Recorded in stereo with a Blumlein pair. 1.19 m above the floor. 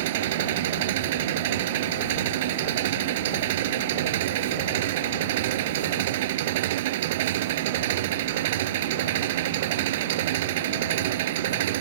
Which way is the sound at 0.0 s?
55° right.